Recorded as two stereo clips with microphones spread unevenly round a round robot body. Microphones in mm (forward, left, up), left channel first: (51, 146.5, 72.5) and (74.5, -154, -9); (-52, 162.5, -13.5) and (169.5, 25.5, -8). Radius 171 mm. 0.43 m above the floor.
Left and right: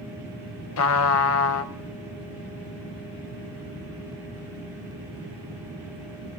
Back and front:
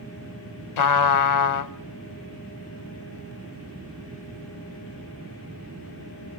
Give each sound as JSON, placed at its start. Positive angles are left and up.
{"t": 0.8, "sound": "a trumpet", "azimuth_deg": 145, "distance_m": 0.6}